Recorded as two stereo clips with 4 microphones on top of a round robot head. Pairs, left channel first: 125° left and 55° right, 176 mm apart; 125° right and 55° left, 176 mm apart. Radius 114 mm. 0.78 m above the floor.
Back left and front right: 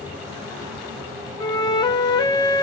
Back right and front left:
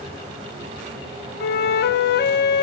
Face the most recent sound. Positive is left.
turn(degrees=-165)